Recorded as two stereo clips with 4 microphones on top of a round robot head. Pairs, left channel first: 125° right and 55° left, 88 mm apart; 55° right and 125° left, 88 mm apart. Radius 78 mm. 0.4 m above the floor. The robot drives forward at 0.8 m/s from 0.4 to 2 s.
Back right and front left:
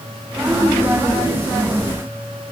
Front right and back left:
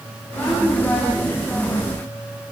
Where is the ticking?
I don't hear ticking.